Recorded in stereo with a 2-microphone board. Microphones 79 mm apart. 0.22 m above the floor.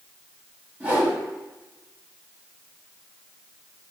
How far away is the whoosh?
About 1.2 m.